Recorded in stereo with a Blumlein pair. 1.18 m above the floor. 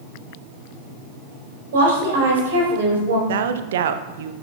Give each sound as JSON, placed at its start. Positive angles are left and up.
{"t": 1.7, "sound": "a woman speaking", "azimuth_deg": -65, "distance_m": 4.0}
{"t": 3.3, "sound": "a woman speaking", "azimuth_deg": -60, "distance_m": 0.6}